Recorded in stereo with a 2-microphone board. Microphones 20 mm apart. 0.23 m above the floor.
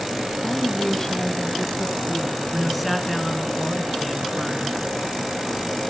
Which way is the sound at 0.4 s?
20° left (ahead or behind).